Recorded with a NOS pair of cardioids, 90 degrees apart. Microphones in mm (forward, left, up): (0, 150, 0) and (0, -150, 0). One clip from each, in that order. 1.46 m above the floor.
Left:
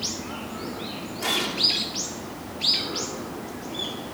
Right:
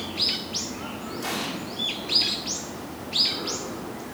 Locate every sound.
1.2 s an explosion: 15° left, 2.5 m